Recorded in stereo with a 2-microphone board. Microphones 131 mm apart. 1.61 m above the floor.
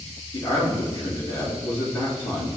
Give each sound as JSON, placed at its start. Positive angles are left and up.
{"t": 0.3, "sound": "a man speaking", "side_deg": 50, "distance_m": 3.0}